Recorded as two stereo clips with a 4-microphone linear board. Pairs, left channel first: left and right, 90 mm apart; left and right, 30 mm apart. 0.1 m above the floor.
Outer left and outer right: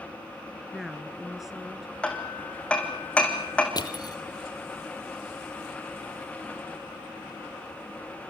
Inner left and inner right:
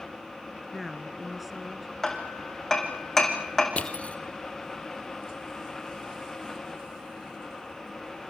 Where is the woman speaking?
5° right (ahead or behind), 1.3 m.